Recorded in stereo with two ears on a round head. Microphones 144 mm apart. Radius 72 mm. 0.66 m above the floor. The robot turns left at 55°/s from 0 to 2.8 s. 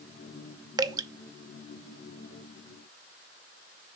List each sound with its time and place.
0.8 s dripping: 25° right (ahead or behind), 0.5 m